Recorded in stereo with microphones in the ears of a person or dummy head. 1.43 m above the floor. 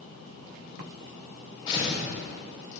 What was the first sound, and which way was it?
Tearing paper, 35° left (ahead or behind).